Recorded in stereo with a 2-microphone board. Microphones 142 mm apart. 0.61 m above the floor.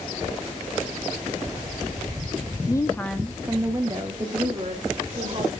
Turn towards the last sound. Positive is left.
turn(degrees=-35)  # may be behind; listen again after turning